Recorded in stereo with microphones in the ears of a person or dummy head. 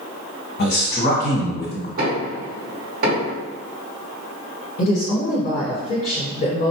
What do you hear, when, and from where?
0.6 s a man speaking: 45° left (ahead or behind), 1.3 m
2.0 s knocking: 60° right (ahead or behind), 1.8 m
4.8 s a woman speaking: 50° left (ahead or behind), 1.3 m